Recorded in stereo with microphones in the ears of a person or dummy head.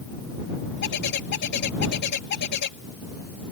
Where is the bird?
60° left (ahead or behind).